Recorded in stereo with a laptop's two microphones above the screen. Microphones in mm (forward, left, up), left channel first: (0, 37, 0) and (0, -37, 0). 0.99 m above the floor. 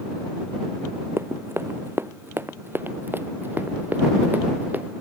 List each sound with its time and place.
1.2 s running footsteps: 35° right (ahead or behind); by 5.0 s 25° right (ahead or behind)